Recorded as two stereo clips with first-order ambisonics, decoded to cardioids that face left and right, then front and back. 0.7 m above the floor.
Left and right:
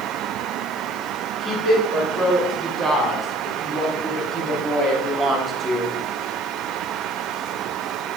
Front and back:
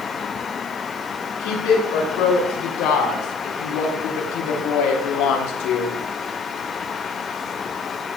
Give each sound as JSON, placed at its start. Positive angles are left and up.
{"t": 1.4, "sound": "a woman speaking", "azimuth_deg": 5, "distance_m": 7.5}